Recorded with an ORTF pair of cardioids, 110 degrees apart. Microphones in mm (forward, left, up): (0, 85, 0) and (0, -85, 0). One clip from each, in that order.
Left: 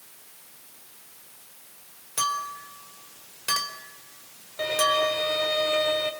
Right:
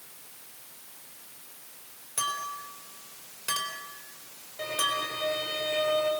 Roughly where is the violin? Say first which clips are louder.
Left 6 dB; ahead left.